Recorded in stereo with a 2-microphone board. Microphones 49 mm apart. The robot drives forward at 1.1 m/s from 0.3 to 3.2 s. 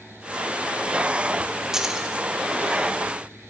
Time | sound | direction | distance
1.7 | keys jangling | 15° right (ahead or behind) | 1.1 m